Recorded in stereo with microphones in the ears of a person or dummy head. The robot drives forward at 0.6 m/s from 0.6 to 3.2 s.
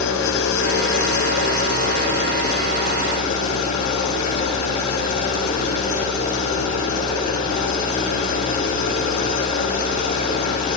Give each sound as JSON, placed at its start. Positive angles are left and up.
{"t": 0.0, "sound": "an engine running", "side_deg": 65, "distance_m": 2.0}